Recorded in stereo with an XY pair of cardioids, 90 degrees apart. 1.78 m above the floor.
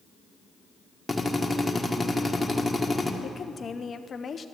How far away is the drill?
About 1.3 m.